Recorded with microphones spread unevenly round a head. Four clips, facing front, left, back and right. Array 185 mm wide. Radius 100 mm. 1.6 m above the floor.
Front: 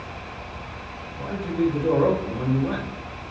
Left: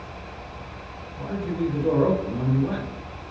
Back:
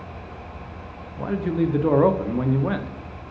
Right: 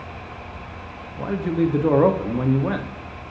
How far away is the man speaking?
About 0.6 m.